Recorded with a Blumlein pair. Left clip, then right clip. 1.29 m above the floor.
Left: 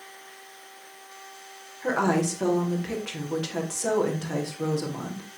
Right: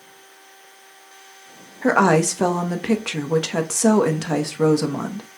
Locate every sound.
1.8 s a woman speaking: 60° right, 0.7 m